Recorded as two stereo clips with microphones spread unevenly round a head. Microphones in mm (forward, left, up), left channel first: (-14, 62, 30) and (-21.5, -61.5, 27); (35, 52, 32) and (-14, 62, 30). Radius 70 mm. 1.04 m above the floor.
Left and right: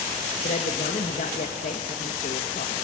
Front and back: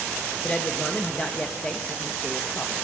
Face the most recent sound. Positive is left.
turn(degrees=55)